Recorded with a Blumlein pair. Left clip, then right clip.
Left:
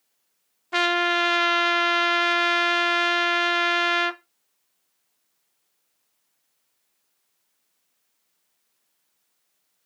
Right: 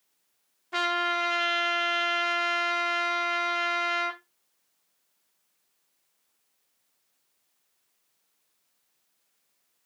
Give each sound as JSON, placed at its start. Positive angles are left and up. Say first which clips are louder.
{"t": 0.7, "sound": "a trumpet", "louder": "left 5 dB", "azimuth_deg": 15, "distance_m": 0.8}